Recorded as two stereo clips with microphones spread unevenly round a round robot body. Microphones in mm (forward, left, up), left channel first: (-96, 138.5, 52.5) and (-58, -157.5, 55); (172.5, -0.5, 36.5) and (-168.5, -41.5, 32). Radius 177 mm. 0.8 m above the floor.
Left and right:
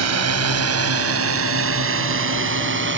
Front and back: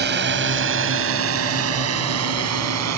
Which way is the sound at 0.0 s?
115° right.